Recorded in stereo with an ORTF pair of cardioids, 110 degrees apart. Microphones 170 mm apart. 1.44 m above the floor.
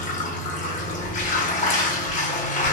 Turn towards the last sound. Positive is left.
turn(degrees=45)